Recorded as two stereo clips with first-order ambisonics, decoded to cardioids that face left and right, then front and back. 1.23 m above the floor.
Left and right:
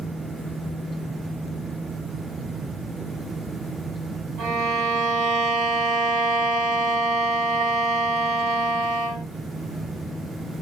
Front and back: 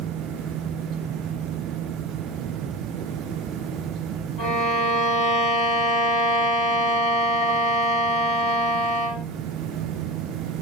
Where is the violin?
50° right, 1.6 m.